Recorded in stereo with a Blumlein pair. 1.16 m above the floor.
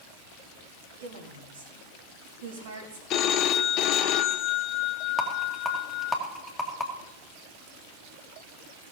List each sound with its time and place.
1.0 s a woman speaking: 60° right, 3 m
3.1 s a phone ringing: 35° left, 0.7 m
5.2 s a rattle: 5° left, 1.9 m